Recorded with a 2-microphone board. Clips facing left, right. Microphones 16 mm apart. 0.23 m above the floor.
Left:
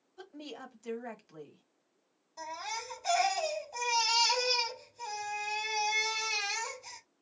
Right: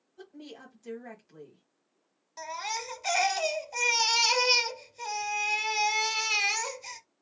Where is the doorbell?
I don't hear a doorbell.